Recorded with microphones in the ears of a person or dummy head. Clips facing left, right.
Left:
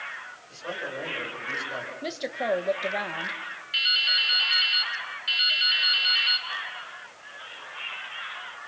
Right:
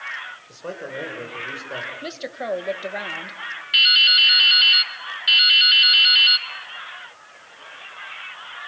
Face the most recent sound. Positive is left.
turn(degrees=-60)  # may be behind; listen again after turning